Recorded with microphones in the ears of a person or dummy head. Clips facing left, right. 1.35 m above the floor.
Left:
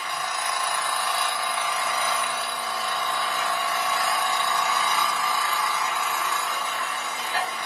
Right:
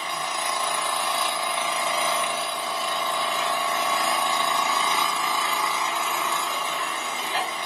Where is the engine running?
20° right (ahead or behind), 1.0 m.